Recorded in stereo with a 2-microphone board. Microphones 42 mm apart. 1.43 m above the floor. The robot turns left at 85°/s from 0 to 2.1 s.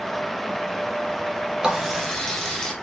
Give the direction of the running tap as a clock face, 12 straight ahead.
5 o'clock.